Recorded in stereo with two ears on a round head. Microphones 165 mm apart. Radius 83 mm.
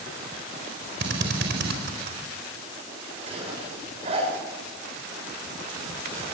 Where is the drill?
60° right (ahead or behind), 4 m.